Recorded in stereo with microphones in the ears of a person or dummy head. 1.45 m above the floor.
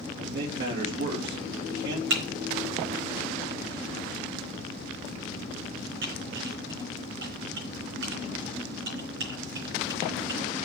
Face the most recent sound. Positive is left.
turn(degrees=-65)  # may be behind; listen again after turning